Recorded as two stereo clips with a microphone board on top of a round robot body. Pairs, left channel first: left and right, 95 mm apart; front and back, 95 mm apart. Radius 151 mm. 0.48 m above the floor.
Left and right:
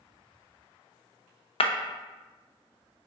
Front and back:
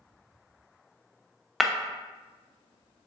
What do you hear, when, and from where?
1.6 s breaking glass: 90° left, 0.7 m